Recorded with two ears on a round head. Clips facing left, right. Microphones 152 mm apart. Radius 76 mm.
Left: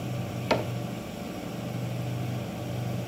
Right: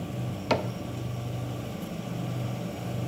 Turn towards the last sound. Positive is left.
turn(degrees=5)  # may be behind; listen again after turning